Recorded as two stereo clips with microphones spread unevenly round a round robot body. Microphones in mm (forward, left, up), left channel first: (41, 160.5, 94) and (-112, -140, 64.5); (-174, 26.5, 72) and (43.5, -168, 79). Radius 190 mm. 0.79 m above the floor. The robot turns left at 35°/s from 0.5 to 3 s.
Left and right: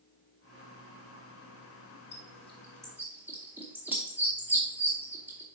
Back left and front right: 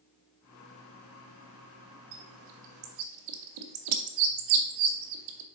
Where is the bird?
Straight ahead, 0.7 m; by 5.5 s 30° right, 0.7 m.